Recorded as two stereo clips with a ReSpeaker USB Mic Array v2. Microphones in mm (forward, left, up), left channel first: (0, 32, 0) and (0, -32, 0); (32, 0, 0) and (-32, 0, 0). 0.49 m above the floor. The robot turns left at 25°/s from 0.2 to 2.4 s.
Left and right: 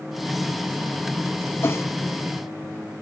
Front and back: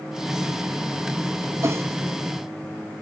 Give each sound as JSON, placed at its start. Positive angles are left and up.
{"t": 1.6, "sound": "a whoosh", "azimuth_deg": 140}